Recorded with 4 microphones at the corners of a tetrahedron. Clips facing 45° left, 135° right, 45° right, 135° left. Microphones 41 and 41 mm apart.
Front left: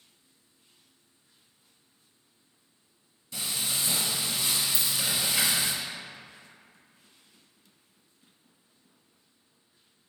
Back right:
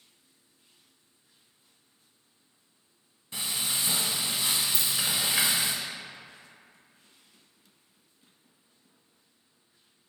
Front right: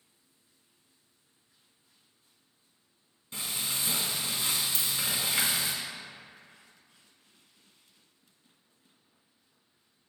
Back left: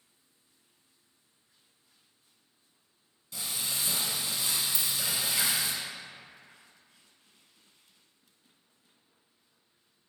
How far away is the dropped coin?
About 1.2 m.